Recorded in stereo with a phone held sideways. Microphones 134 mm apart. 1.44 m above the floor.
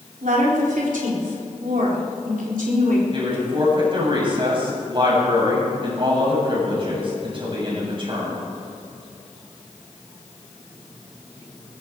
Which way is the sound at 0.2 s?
90° right.